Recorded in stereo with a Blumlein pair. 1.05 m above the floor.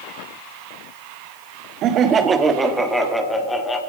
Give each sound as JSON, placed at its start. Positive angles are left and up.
{"t": 1.8, "sound": "laughter", "azimuth_deg": -35, "distance_m": 1.5}